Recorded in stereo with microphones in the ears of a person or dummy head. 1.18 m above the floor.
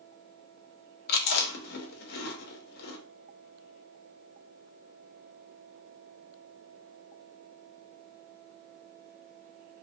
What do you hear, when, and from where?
1.1 s chewing: 50° left (ahead or behind), 0.9 m